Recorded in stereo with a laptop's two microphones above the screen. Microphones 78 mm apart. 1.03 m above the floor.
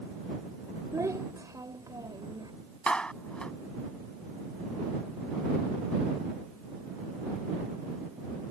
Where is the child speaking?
45° right (ahead or behind); by 2.5 s 60° right (ahead or behind).